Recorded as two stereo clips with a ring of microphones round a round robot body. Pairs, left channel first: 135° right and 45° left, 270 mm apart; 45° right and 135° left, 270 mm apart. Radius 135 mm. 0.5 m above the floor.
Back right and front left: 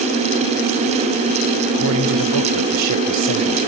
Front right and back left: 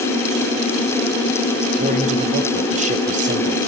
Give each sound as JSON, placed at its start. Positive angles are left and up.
{"t": 1.7, "sound": "a man speaking", "azimuth_deg": 70, "distance_m": 2.5}